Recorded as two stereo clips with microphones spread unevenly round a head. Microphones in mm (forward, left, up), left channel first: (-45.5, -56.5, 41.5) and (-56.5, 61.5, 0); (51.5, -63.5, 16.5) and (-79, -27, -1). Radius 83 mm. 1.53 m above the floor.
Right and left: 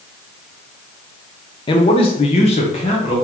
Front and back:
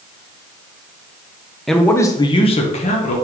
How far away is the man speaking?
About 0.7 m.